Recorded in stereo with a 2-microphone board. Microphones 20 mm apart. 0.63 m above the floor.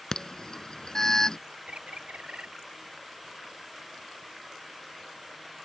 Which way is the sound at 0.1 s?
30° left (ahead or behind).